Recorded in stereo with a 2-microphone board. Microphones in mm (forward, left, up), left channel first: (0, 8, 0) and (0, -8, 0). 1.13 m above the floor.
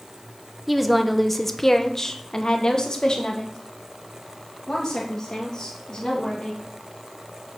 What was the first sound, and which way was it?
A woman speaking, 5° right (ahead or behind).